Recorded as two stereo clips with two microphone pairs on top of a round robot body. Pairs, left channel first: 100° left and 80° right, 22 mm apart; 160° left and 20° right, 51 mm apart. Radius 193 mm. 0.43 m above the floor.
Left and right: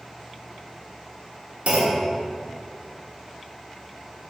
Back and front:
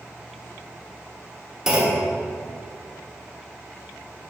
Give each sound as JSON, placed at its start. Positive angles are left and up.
{"t": 1.7, "sound": "a clunk", "azimuth_deg": -95, "distance_m": 0.8}